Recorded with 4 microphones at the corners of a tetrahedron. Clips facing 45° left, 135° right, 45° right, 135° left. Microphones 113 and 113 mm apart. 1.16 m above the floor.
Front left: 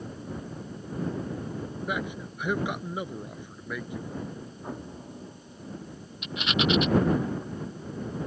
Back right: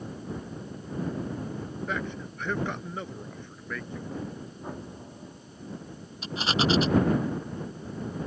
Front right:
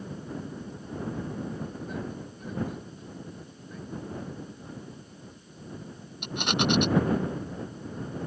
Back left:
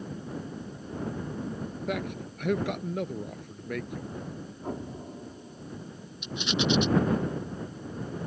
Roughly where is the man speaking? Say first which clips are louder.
Front left 2 dB, back left 4 dB; behind left.